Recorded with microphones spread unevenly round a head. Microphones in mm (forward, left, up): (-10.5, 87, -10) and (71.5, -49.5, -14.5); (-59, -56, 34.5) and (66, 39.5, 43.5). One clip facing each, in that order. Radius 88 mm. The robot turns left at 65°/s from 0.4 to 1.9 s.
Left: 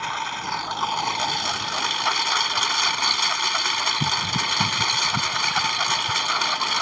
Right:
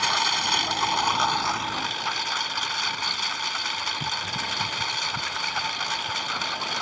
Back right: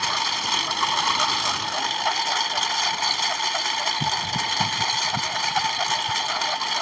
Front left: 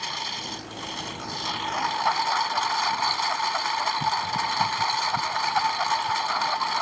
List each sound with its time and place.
0.0 s a lawn mower: 110° right; by 6.8 s 150° left